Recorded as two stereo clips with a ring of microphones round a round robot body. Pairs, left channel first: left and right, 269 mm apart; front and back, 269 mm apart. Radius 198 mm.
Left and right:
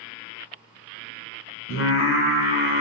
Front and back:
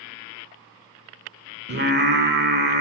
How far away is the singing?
About 1.1 m.